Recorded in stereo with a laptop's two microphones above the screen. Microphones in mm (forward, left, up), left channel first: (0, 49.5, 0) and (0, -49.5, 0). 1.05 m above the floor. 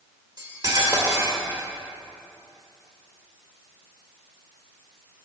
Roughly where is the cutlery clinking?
Right.